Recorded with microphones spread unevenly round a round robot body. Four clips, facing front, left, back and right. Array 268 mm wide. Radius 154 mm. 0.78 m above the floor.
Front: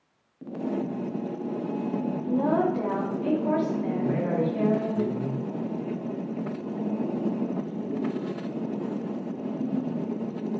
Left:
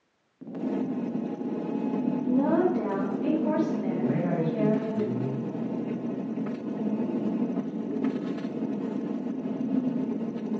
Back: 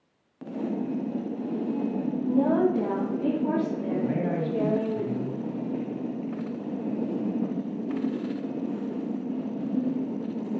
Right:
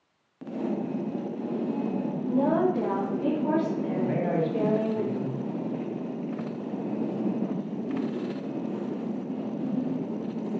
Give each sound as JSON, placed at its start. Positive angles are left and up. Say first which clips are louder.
{"t": 2.3, "sound": "a woman speaking", "louder": "even, back 2 dB", "azimuth_deg": 155, "distance_m": 1.3}
{"t": 4.0, "sound": "a man speaking", "louder": "right 1 dB, front 1 dB", "azimuth_deg": -95, "distance_m": 1.9}